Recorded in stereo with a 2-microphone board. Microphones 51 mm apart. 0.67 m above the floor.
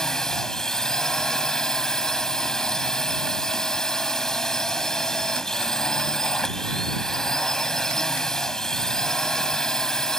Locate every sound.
0.0 s a drone: 10° left (ahead or behind)